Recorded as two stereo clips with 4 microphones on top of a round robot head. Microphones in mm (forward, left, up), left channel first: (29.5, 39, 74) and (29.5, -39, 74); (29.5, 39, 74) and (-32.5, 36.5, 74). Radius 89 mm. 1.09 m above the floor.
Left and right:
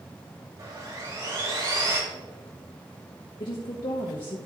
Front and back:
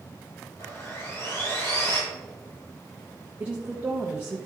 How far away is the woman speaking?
About 1.2 m.